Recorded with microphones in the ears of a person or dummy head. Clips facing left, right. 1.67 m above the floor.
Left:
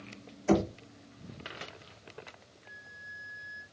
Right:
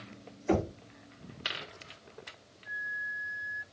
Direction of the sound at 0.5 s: 55° left (ahead or behind).